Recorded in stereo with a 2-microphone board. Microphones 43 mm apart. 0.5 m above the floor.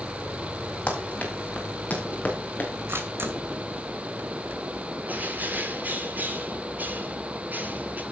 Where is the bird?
40° right (ahead or behind), 1.8 m.